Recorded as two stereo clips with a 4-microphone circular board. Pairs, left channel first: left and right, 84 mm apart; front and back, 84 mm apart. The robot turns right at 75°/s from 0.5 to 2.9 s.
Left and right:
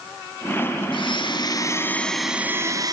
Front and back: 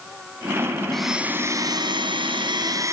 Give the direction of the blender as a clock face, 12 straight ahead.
9 o'clock.